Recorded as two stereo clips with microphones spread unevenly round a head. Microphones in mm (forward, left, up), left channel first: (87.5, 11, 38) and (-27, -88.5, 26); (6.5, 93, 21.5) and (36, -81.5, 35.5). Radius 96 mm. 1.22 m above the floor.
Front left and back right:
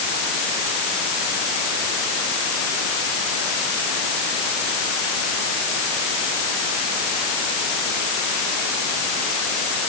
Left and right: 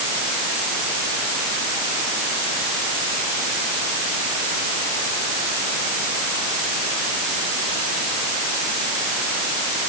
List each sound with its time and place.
Only background noise.